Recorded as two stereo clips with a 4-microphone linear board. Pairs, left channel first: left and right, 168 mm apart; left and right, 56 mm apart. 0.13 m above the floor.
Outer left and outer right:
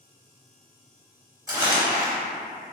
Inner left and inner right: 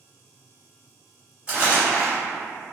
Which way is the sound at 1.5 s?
20° right (ahead or behind).